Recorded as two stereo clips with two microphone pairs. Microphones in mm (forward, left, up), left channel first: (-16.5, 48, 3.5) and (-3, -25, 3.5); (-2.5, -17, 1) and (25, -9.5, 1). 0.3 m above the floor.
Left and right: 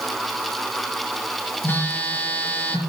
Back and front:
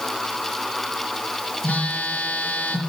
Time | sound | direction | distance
1.6 | a phone buzzing | 160° left | 6 m